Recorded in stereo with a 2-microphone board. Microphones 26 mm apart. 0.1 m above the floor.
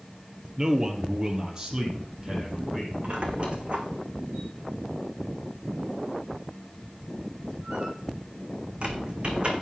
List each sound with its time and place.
0.6 s a man speaking: 20° right (ahead or behind), 1.8 m; by 2.9 s 30° right (ahead or behind), 3.5 m
3.0 s a squeak: 45° right (ahead or behind), 1.7 m